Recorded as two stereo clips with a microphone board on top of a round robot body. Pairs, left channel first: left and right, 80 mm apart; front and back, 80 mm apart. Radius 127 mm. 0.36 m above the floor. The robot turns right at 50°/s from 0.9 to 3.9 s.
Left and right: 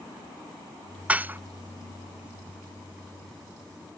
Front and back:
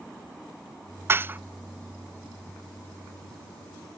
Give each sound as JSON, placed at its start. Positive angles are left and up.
{"t": 1.1, "sound": "dishes clattering", "azimuth_deg": -150, "distance_m": 0.5}